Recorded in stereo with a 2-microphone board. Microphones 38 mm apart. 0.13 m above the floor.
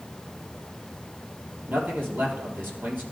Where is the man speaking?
60° right (ahead or behind), 3 m.